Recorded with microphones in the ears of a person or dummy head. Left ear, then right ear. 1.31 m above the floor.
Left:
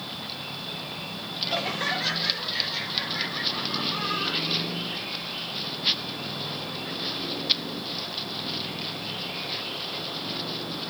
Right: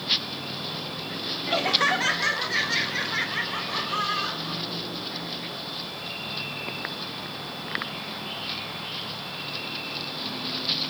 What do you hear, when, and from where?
1.5 s laughter: 20° right (ahead or behind), 0.8 m; by 4.6 s 85° right, 2.0 m